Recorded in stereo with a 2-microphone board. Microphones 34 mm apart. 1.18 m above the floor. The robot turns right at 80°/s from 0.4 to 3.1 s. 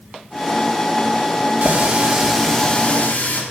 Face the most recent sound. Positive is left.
turn(degrees=55)